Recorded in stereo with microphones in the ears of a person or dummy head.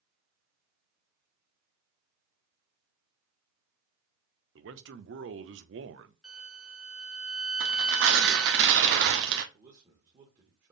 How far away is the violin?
About 1.2 m.